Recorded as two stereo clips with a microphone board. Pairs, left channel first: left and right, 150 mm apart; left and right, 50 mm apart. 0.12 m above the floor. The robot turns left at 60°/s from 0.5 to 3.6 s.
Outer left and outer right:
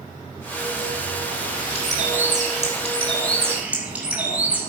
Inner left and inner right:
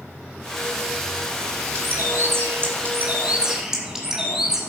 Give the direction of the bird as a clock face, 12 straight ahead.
2 o'clock.